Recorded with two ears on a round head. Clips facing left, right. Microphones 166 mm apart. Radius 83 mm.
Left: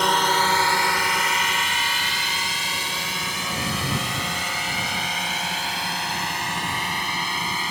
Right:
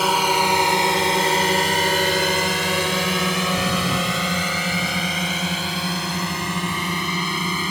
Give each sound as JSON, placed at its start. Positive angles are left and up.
{"t": 0.0, "sound": "a drone", "side_deg": -5}